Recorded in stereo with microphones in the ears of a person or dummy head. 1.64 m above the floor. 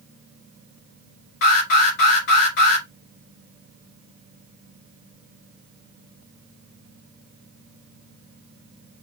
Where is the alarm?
65° left (ahead or behind), 2.5 m.